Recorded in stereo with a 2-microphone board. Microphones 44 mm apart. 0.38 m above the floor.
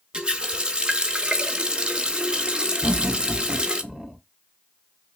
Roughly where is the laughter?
Centre.